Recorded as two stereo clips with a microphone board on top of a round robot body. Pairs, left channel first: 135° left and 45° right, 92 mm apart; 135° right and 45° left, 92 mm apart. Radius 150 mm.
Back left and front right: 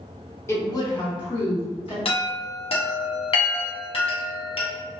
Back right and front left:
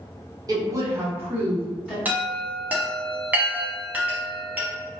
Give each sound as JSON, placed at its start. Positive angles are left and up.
{"t": 0.5, "sound": "a woman speaking", "azimuth_deg": 80, "distance_m": 1.2}
{"t": 2.0, "sound": "a chime", "azimuth_deg": 120, "distance_m": 0.9}